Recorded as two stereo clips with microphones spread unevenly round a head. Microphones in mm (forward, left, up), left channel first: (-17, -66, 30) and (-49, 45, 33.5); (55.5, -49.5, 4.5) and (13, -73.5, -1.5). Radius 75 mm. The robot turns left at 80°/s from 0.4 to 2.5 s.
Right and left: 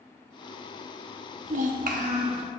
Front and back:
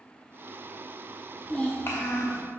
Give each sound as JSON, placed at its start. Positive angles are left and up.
{"t": 1.4, "sound": "a child speaking", "azimuth_deg": 115, "distance_m": 0.7}